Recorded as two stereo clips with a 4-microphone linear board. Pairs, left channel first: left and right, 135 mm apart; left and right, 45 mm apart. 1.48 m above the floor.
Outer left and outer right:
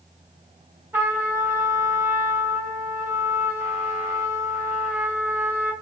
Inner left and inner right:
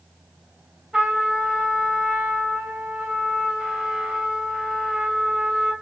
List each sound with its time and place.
0.9 s a trumpet: 15° right (ahead or behind), 1.3 m